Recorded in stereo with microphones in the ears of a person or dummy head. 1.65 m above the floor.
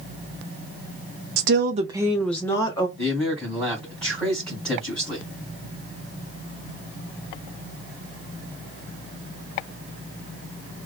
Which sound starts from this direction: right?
A woman speaking, at 1.4 s.